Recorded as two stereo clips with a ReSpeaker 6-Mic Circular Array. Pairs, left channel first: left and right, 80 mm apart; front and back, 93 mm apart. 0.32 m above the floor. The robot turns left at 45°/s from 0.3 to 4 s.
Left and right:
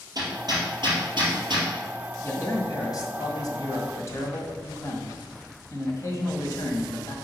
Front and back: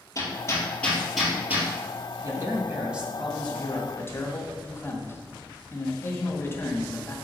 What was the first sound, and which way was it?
Hammering, 50° right.